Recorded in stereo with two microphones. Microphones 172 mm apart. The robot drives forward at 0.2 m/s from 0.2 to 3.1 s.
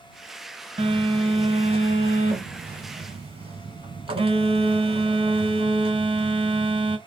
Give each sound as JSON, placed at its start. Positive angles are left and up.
{"t": 0.8, "sound": "a phone buzzing", "side_deg": -30, "distance_m": 0.7}